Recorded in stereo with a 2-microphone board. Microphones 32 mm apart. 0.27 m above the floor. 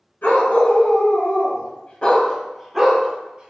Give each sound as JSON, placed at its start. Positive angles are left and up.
{"t": 0.2, "sound": "a dog barking", "side_deg": 75, "distance_m": 1.1}